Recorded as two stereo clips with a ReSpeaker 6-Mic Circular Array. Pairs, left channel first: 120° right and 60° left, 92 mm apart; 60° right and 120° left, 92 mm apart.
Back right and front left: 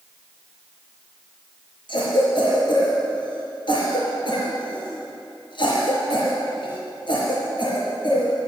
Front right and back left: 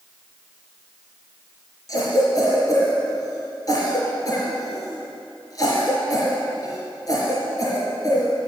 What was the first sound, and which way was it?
A cough, 105° right.